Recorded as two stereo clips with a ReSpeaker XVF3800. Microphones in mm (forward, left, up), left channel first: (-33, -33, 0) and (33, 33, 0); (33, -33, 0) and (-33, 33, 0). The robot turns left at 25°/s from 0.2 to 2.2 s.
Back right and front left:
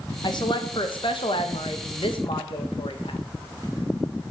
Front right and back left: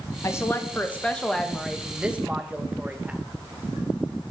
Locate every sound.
0.2 s a woman speaking: 100° right, 1.6 m; by 3.2 s 150° right, 1.6 m